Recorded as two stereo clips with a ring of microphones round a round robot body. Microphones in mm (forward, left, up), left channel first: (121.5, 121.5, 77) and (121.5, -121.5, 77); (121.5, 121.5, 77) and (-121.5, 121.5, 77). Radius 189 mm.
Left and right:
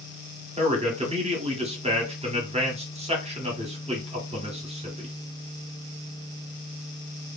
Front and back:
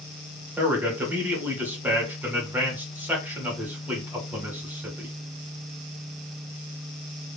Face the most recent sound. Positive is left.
turn(degrees=-105)